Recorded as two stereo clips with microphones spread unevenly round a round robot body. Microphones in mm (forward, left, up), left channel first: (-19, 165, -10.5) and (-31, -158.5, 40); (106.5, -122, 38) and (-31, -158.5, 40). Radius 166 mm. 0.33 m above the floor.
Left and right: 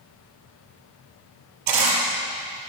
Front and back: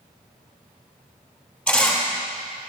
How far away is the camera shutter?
About 3.5 m.